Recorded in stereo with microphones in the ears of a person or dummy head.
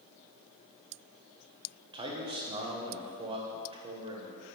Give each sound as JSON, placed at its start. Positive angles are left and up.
{"t": 1.9, "sound": "a man speaking", "side_deg": -25, "distance_m": 1.0}